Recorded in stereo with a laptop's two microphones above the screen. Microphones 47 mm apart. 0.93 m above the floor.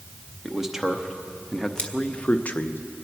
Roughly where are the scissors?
Left.